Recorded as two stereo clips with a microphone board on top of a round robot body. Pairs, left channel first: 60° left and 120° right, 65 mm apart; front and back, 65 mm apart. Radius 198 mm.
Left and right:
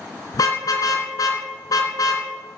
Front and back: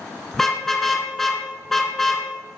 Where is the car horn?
85° left, 2.5 m.